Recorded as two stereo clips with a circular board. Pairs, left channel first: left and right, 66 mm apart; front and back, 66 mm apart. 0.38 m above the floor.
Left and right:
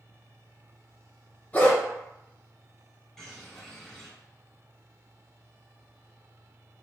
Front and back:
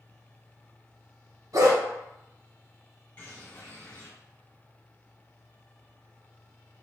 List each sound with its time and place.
1.5 s a dog barking: 150° left, 1.1 m
3.2 s a bird: 25° left, 1.5 m